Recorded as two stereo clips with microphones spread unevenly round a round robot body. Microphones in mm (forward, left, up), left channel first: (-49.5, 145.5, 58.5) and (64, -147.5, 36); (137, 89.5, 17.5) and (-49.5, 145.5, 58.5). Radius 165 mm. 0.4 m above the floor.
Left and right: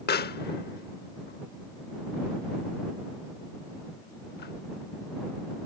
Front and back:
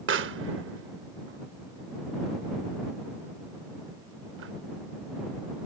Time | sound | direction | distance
0.1 | a pop | 170° left | ?